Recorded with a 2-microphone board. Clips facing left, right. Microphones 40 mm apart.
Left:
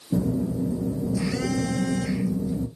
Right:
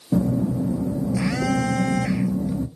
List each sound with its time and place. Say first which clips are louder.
0.1 s a phone buzzing: right 3 dB; 60° right (ahead or behind), 0.6 m